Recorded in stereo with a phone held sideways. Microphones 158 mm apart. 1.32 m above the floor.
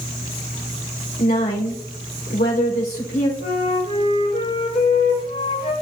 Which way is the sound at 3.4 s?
55° left (ahead or behind).